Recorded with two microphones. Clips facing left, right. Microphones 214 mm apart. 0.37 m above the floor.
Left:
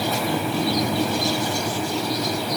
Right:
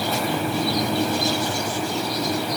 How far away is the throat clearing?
I don't hear throat clearing.